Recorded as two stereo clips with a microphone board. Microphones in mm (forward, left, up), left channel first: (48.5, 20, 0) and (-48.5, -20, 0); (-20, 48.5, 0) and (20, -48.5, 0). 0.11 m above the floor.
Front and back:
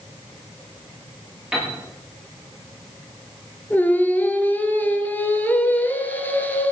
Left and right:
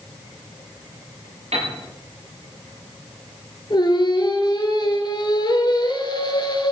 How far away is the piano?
About 8 m.